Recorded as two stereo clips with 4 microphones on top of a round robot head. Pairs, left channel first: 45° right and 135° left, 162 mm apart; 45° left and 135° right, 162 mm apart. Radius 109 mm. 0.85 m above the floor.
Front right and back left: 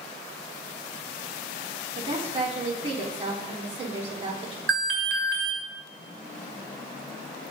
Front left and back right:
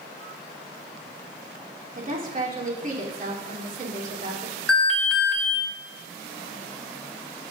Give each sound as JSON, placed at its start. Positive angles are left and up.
{"t": 1.9, "sound": "a woman speaking", "azimuth_deg": -175, "distance_m": 3.0}
{"t": 4.7, "sound": "an alarm", "azimuth_deg": 130, "distance_m": 2.5}